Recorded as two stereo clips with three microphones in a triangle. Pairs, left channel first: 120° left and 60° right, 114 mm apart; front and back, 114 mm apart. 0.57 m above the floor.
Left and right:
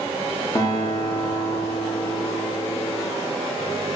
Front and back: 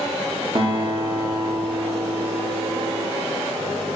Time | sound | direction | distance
0.6 | a guitar | 160° left | 0.6 m